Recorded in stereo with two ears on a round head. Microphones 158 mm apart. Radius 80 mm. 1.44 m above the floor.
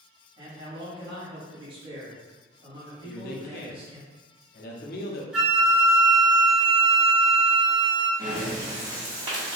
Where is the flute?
5° right (ahead or behind), 1.1 m.